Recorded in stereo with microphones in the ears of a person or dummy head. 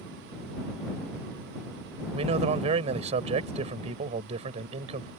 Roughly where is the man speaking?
Right.